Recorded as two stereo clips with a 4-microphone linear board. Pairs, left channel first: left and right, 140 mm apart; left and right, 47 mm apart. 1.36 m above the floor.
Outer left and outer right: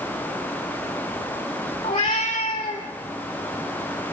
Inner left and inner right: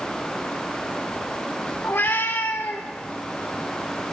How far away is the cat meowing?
About 3 m.